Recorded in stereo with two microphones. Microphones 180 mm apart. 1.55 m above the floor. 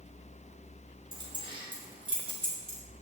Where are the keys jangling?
25° right (ahead or behind), 3 m; by 2.8 s 30° right (ahead or behind), 4.5 m.